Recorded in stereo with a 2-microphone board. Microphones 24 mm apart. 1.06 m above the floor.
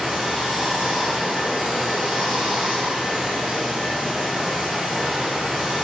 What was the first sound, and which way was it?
Running water, 70° right (ahead or behind).